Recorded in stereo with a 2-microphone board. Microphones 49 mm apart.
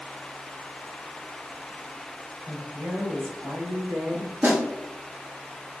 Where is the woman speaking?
50° right (ahead or behind), 1.4 m; by 4.3 s 80° right, 0.9 m.